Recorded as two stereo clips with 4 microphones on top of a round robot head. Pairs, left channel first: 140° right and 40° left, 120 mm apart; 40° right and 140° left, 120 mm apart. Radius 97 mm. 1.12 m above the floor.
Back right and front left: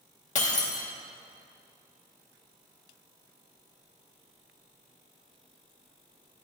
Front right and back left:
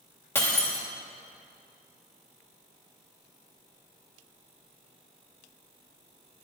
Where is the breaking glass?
110° right, 2 m.